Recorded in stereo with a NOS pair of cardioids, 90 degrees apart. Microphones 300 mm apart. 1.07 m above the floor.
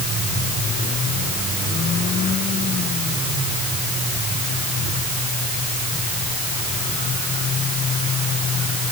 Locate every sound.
Only background noise.